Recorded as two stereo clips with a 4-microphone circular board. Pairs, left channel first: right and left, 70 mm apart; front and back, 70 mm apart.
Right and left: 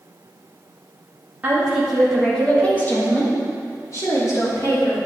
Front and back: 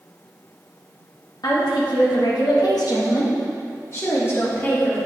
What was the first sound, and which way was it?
A woman speaking, 20° left.